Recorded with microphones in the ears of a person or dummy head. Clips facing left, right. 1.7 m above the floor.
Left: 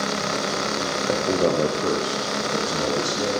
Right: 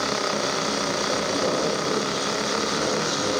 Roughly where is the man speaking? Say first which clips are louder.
Left 7 dB; left.